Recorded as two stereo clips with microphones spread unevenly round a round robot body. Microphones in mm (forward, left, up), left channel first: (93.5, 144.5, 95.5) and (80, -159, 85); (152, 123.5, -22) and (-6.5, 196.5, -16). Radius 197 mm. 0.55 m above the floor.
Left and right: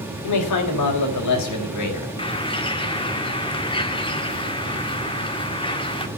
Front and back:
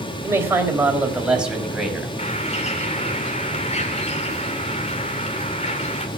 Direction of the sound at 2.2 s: 15° left.